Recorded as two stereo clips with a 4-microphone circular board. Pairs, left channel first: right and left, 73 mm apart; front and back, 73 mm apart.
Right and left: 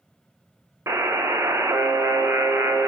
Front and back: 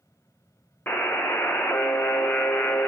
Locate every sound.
0.9 s a buzzer: 55° left, 0.5 m